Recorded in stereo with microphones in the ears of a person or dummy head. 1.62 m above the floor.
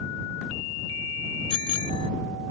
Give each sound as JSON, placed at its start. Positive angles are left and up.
{"t": 1.5, "sound": "a bicycle bell", "side_deg": 30}